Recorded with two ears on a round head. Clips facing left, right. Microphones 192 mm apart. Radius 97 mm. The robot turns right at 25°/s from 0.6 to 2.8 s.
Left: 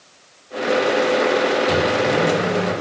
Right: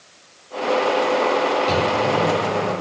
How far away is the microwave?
About 5.5 m.